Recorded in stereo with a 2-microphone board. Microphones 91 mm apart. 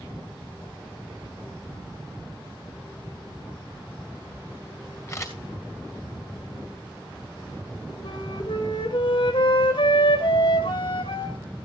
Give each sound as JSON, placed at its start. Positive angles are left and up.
{"t": 5.1, "sound": "a camera shutter", "side_deg": 30, "distance_m": 2.5}
{"t": 8.0, "sound": "a flute", "side_deg": 55, "distance_m": 4.0}